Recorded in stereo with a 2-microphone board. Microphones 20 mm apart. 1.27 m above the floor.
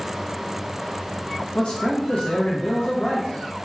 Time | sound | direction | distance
1.6 | a man speaking | 65° left (ahead or behind) | 0.7 m